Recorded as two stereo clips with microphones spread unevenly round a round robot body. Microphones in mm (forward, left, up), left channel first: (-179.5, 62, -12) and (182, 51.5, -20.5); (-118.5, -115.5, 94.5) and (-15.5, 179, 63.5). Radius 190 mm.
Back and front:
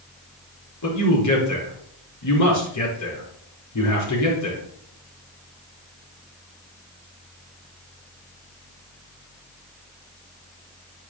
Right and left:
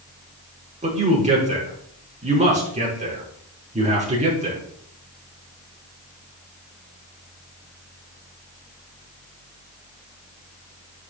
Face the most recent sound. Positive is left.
turn(degrees=140)